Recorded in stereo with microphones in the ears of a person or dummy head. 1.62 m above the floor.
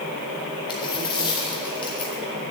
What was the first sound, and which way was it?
A dropped coin, 25° left (ahead or behind).